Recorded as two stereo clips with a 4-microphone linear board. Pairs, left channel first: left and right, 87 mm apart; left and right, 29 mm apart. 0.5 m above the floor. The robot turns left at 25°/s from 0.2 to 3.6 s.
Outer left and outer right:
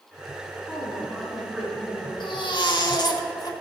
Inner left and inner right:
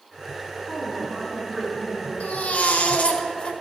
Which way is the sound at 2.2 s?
85° left.